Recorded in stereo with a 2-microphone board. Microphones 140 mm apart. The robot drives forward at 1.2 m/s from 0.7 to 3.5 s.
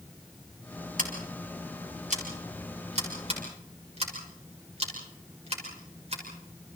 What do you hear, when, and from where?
1.0 s scissors: 75° right (ahead or behind), 4.5 m; by 6.2 s 45° right (ahead or behind), 6 m